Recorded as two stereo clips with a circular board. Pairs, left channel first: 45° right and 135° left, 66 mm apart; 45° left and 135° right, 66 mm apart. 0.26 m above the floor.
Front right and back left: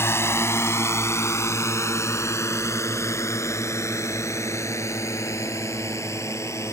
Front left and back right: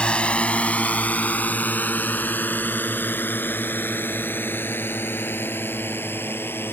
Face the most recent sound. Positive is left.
turn(degrees=-5)